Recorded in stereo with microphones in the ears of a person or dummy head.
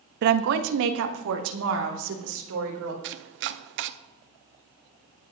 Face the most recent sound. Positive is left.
turn(degrees=-60)  # may be behind; listen again after turning